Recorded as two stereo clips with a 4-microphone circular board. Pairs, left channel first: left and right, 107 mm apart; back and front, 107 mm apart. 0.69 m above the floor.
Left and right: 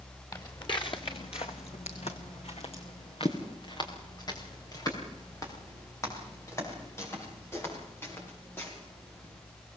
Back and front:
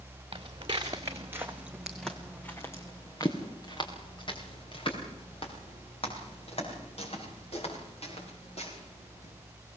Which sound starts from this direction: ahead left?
Footsteps, at 0.3 s.